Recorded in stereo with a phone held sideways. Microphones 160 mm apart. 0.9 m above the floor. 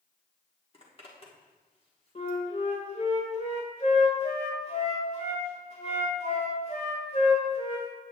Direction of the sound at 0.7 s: 35° left (ahead or behind).